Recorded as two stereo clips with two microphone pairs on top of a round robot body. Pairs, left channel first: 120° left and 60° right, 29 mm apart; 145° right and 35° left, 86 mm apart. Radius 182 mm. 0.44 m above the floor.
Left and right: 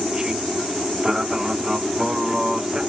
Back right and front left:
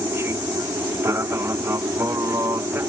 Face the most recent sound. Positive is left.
turn(degrees=5)